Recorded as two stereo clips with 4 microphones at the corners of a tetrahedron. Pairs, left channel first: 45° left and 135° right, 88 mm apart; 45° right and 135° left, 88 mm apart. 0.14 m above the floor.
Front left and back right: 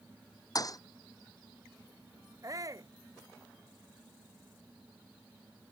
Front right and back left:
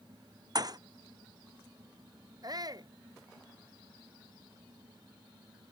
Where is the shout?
175° left.